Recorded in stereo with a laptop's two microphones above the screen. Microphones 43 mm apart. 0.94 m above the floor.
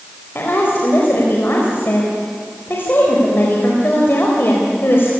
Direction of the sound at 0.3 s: 55° left (ahead or behind).